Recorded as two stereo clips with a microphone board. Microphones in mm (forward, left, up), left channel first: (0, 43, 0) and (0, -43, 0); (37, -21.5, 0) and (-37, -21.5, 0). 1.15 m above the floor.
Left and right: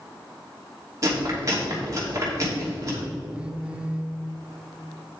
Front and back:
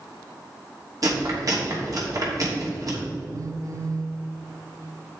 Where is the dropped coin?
No dropped coin in this recording.